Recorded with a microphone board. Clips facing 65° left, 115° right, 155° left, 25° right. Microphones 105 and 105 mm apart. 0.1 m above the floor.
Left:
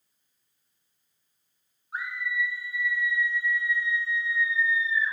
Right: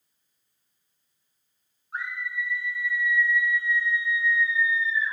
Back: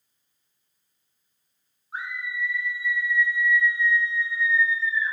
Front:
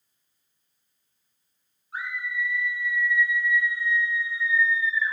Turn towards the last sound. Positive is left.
turn(degrees=35)